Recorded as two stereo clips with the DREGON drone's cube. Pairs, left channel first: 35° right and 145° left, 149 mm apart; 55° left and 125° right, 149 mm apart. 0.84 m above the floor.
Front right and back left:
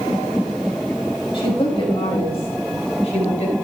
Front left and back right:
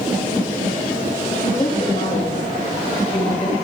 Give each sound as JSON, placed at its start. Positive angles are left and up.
{"t": 1.3, "sound": "a woman speaking", "azimuth_deg": 20, "distance_m": 5.5}